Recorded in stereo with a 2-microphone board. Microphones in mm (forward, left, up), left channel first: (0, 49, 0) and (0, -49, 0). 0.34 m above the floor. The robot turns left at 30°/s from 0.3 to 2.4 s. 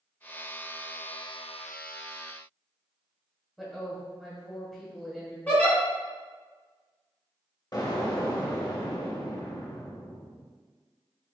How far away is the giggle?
About 1.6 m.